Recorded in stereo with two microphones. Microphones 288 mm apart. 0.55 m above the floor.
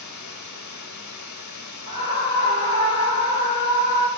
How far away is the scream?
About 2.5 m.